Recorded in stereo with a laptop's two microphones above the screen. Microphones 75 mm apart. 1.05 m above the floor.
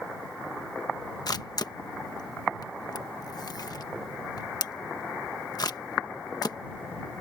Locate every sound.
1.3 s a camera shutter: 60° left (ahead or behind)